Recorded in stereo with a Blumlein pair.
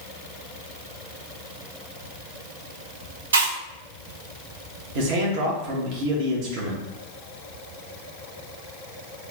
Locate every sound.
3.3 s chewing: 65° right, 0.9 m
5.0 s a man speaking: 40° right, 1.2 m